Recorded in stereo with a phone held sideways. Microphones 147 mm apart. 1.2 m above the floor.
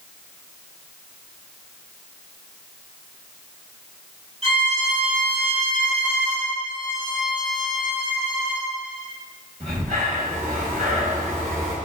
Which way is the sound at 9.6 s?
55° right (ahead or behind).